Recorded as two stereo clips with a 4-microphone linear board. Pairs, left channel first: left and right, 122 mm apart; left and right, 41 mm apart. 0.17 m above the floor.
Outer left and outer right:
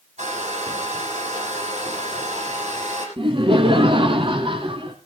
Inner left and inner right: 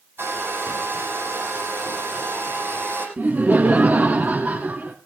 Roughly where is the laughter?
Right.